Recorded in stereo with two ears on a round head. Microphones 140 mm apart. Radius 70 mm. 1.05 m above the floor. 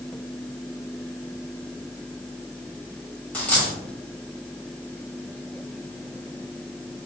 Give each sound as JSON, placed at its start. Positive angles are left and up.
{"t": 3.3, "sound": "a dropped coin", "side_deg": 10, "distance_m": 1.8}